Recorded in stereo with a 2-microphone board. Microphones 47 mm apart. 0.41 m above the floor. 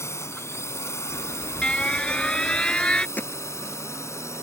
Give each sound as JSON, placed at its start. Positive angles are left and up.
{"t": 0.0, "sound": "a drone", "side_deg": 65}
{"t": 1.1, "sound": "an alarm", "side_deg": 20}
{"t": 3.2, "sound": "hammering", "side_deg": 35}